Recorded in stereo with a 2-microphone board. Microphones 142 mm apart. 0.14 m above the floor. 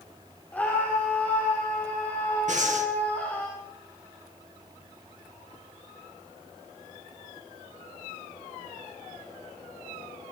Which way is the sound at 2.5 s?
55° right (ahead or behind).